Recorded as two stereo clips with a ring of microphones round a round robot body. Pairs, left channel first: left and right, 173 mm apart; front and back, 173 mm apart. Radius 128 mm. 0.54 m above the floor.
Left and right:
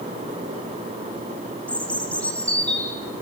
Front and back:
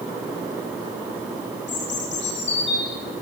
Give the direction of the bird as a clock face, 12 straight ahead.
12 o'clock.